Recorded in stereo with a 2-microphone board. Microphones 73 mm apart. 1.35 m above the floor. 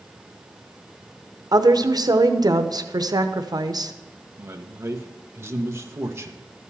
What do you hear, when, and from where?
1.5 s a woman speaking: 60° right (ahead or behind), 0.8 m
4.4 s a man speaking: 35° right (ahead or behind), 1.0 m